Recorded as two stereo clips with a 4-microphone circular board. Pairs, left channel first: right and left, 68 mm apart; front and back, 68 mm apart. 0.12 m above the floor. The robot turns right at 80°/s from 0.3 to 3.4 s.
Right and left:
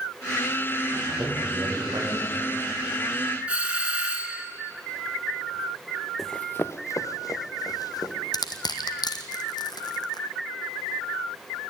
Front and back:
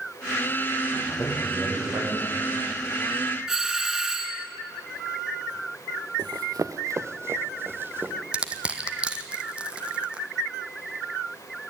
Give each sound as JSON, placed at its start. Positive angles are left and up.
{"t": 0.9, "sound": "a man speaking", "azimuth_deg": 40, "distance_m": 7.5}
{"t": 3.5, "sound": "a doorbell", "azimuth_deg": 110, "distance_m": 1.9}
{"t": 6.2, "sound": "running footsteps", "azimuth_deg": 180, "distance_m": 0.6}
{"t": 8.3, "sound": "crushing", "azimuth_deg": -105, "distance_m": 1.3}